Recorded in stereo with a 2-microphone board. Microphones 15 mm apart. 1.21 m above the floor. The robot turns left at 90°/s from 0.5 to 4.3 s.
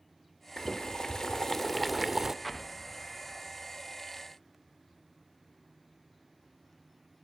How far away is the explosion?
About 0.8 m.